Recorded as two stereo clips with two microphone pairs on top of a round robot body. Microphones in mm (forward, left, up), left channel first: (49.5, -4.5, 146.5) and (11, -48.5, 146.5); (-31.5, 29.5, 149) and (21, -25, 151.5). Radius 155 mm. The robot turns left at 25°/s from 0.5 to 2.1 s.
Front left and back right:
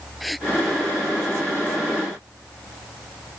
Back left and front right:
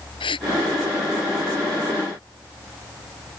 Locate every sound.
0.2 s a gasp: 140° left